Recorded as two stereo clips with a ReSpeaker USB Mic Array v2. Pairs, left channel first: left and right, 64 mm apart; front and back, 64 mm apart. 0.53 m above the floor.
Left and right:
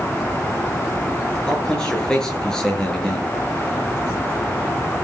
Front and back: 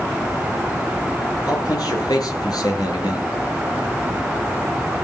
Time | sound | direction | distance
1.5 | a man speaking | 10° left | 8.5 m